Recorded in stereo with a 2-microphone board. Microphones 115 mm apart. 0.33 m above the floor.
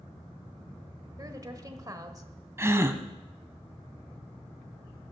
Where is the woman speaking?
30° right (ahead or behind), 1.1 m.